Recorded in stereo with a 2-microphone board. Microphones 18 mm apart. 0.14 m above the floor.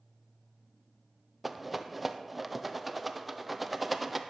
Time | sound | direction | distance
1.4 | a rattle | 10° right (ahead or behind) | 0.8 m